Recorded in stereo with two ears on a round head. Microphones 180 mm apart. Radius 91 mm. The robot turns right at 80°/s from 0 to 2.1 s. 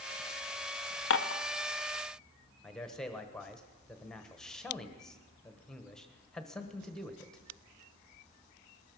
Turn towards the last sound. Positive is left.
turn(degrees=5)  # may be behind; listen again after turning